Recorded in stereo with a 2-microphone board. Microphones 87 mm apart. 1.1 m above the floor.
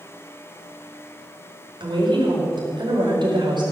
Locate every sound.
1.8 s a woman speaking: 60° right (ahead or behind), 5 m